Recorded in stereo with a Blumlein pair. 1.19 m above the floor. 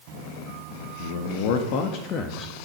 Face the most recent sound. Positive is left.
turn(degrees=20)